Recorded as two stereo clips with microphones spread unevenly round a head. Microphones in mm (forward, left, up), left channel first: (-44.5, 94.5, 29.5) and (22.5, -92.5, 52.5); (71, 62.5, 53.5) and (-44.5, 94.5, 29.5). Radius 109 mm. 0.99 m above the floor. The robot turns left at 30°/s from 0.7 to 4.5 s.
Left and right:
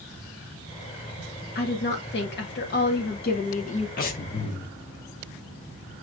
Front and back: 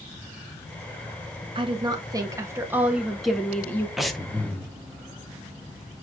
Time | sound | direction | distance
1.6 | a woman speaking | 135° left | 0.7 m
4.0 | breathing | 65° left | 0.6 m